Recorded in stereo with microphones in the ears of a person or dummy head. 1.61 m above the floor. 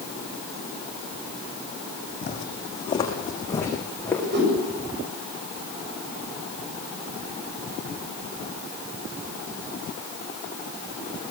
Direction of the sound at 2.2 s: 35° left (ahead or behind).